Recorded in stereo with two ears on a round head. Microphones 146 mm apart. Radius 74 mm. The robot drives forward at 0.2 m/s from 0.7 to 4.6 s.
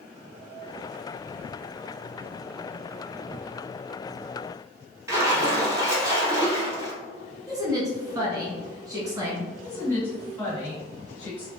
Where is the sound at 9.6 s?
10° left (ahead or behind), 1.6 m.